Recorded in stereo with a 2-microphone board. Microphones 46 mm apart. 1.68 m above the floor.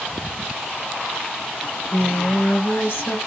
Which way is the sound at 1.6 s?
50° left (ahead or behind).